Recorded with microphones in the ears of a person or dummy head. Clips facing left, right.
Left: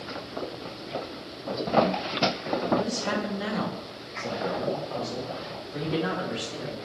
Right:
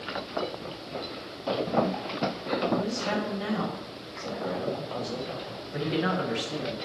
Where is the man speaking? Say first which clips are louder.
Left 1 dB; 55° left (ahead or behind), 1.4 m; by 6.8 s 35° right (ahead or behind), 1.4 m.